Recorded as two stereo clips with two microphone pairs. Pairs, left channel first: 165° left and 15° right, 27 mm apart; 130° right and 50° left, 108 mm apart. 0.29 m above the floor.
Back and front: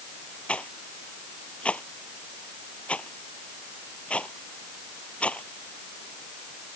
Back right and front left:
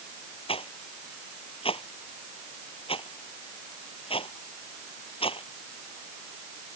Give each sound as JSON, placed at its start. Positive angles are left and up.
{"t": 0.5, "sound": "a rattle", "azimuth_deg": -160}